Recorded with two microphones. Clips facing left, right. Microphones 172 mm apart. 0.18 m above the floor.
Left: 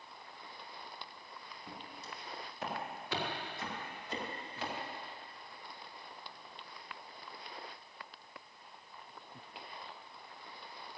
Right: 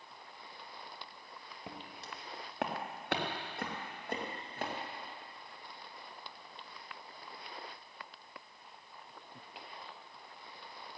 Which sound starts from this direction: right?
Footsteps, at 1.7 s.